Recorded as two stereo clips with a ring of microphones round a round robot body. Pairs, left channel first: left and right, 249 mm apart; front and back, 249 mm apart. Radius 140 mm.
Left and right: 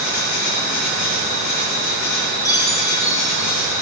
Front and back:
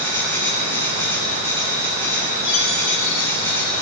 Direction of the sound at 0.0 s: 80° left.